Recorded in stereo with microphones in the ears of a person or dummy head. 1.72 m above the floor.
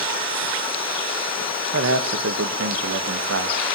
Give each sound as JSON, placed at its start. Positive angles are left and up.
{"t": 1.7, "sound": "a man speaking", "side_deg": -75, "distance_m": 1.7}